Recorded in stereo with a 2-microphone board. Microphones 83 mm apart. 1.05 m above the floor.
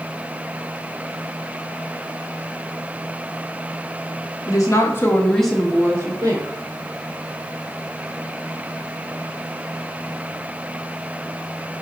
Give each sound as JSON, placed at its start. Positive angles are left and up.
{"t": 4.5, "sound": "a woman speaking", "side_deg": 45, "distance_m": 1.0}